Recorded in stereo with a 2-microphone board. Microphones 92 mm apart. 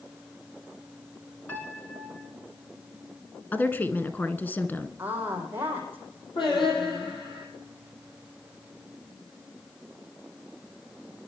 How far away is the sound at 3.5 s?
About 1.2 m.